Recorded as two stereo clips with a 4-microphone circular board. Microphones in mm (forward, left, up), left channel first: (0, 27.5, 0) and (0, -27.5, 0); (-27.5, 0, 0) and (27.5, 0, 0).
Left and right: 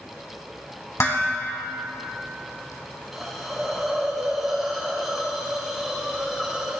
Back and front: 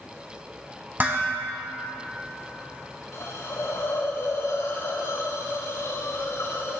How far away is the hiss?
About 3.5 m.